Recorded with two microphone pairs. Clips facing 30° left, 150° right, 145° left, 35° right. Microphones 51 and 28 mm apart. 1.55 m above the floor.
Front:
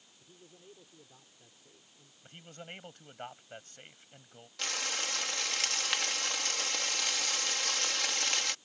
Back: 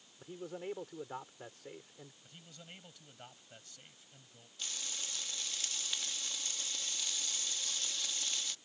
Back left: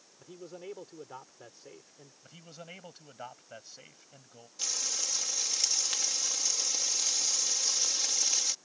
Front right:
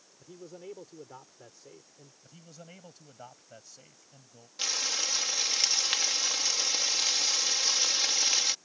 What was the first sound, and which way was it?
A man speaking, 145° right.